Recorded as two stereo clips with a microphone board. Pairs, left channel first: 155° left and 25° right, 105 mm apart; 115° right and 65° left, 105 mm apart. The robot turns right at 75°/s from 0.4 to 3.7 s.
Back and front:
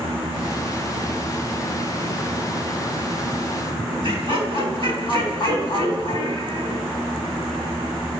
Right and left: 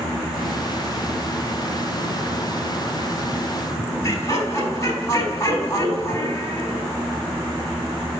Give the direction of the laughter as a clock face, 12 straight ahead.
6 o'clock.